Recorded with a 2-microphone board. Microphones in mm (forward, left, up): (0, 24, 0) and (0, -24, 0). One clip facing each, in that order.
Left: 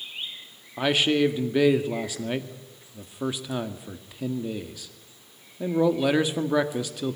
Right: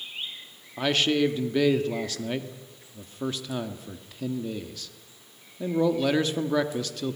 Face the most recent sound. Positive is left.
turn(degrees=10)  # may be behind; listen again after turning